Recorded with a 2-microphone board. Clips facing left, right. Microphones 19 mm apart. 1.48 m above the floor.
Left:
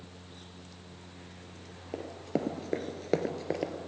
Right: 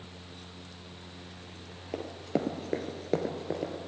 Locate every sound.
1.9 s running footsteps: 25° right (ahead or behind), 2 m; by 3.7 s 35° left (ahead or behind), 2.0 m